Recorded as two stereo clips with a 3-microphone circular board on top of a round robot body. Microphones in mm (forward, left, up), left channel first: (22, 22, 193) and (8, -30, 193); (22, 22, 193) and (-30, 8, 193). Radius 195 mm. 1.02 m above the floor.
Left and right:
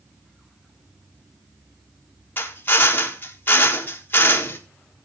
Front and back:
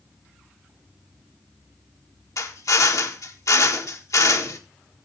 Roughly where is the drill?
Ahead left.